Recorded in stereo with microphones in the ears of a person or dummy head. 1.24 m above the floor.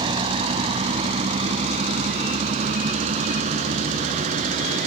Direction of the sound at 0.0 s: 30° right (ahead or behind).